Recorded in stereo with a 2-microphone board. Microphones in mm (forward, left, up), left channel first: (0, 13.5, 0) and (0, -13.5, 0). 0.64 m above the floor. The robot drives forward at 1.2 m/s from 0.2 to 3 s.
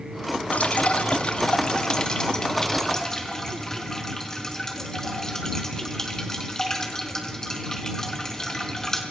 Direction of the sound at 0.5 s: 70° left (ahead or behind).